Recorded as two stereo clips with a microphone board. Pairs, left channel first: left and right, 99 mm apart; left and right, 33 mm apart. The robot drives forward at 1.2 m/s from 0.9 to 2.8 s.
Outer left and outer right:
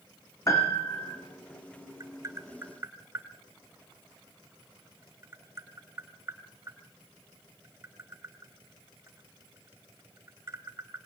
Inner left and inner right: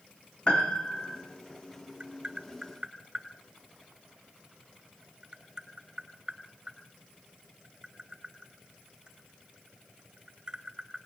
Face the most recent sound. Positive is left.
turn(degrees=-25)  # may be behind; listen again after turning